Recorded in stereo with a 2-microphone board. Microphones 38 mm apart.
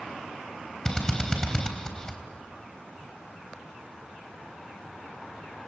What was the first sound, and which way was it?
A drill, 15° left (ahead or behind).